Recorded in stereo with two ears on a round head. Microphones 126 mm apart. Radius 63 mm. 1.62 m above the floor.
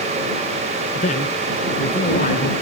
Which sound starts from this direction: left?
A man speaking, at 0.9 s.